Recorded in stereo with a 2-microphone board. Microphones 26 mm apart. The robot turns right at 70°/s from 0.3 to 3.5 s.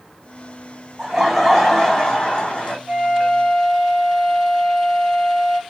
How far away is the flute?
About 1.7 m.